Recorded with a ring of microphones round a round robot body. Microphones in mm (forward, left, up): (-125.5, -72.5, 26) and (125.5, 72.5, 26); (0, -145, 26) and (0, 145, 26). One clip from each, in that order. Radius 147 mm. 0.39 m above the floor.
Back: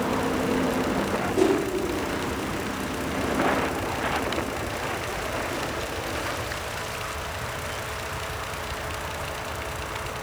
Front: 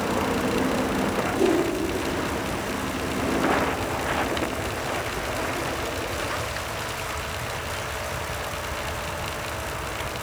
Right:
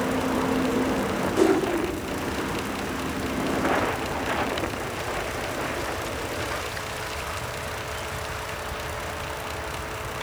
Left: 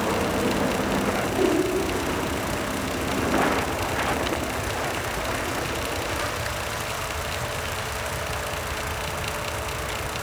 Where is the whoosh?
85° right, 3.5 m.